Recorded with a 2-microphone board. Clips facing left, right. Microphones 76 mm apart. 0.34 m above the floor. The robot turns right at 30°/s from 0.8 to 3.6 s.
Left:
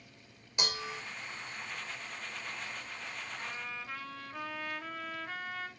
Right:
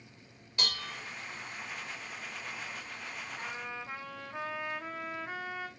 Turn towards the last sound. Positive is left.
turn(degrees=-20)  # may be behind; listen again after turning